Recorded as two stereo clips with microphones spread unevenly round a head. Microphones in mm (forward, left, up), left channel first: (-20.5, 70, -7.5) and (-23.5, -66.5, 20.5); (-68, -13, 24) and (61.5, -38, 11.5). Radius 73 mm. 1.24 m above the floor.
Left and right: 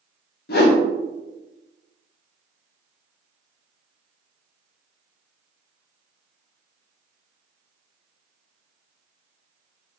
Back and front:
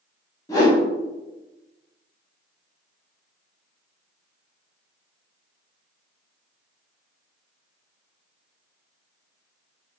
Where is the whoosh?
105° left, 0.5 m.